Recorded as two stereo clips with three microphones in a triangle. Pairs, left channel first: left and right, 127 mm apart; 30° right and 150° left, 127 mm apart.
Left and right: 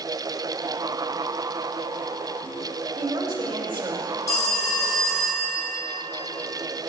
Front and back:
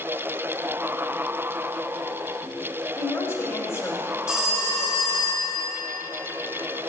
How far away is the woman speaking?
About 1.5 m.